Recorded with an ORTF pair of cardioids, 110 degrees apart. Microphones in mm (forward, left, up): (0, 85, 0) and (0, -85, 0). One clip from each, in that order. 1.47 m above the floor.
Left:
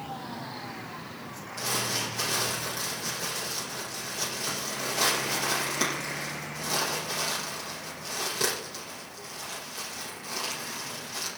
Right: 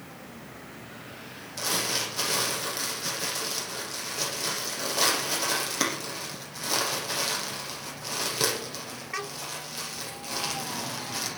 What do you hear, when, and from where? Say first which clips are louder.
1.6 s crumpling: right 2 dB; 30° right, 9.5 m